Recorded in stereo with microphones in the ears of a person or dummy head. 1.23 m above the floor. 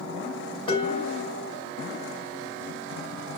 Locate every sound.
0.7 s dishes clattering: 30° left (ahead or behind), 6.5 m